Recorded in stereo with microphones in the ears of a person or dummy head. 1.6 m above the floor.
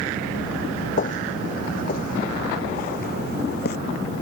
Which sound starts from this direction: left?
Footsteps, at 1.0 s.